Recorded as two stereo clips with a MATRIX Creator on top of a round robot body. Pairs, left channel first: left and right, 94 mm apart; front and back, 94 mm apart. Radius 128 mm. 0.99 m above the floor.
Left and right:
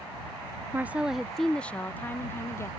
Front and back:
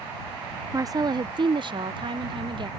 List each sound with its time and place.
0.7 s a woman speaking: 145° right; by 2.7 s 150° left